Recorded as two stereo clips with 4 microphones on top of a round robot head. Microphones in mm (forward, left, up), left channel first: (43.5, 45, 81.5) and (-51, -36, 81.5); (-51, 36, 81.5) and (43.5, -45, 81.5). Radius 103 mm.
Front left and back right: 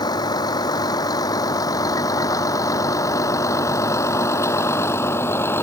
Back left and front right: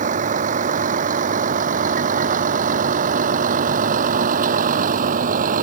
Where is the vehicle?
20° right; by 5.6 s 30° right.